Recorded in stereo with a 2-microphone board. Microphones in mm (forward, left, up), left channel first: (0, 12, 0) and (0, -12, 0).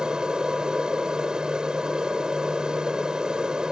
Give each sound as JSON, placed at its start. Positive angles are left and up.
{"t": 0.0, "sound": "an aircraft", "side_deg": -30}